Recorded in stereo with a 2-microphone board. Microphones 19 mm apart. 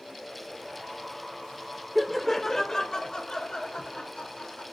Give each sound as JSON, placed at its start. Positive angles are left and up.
{"t": 1.9, "sound": "laughter", "side_deg": -5, "distance_m": 0.9}